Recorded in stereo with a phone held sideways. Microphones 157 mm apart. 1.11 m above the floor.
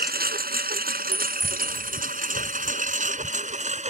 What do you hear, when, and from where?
0.0 s a lawn mower: 80° right; by 3.9 s 45° right (ahead or behind)
1.1 s a clink: 25° right (ahead or behind)